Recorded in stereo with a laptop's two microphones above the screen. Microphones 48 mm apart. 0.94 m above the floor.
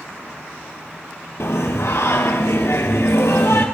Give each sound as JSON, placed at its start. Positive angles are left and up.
{"t": 1.4, "sound": "singing", "side_deg": 70, "distance_m": 3.0}